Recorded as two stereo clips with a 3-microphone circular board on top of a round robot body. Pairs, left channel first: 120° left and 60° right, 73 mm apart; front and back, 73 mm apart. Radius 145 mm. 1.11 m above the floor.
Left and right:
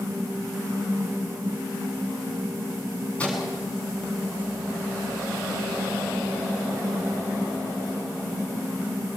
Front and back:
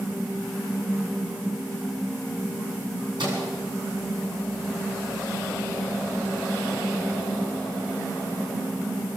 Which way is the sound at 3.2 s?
165° right.